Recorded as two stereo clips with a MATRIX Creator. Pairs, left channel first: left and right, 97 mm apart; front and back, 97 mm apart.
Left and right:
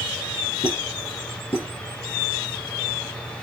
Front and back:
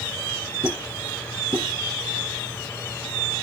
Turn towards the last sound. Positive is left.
turn(degrees=115)